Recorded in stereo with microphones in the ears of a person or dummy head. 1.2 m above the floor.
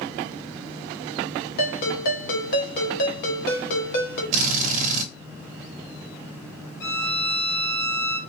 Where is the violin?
75° left (ahead or behind), 2.5 m.